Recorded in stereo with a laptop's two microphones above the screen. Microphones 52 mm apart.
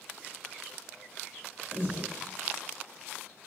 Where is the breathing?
35° right (ahead or behind), 1.0 m.